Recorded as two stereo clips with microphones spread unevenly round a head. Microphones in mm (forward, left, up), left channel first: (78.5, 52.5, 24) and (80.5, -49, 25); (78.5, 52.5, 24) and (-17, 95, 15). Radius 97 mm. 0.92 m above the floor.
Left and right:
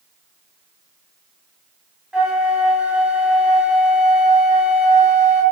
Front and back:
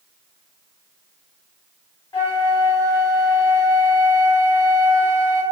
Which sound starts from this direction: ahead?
A flute, at 2.1 s.